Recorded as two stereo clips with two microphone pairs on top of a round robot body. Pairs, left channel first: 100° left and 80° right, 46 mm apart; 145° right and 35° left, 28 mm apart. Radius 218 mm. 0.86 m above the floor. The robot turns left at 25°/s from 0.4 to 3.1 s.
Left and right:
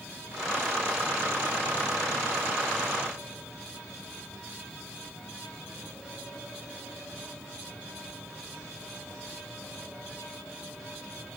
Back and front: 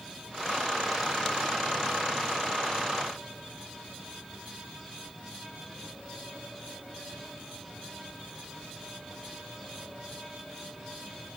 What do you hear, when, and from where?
Only background noise.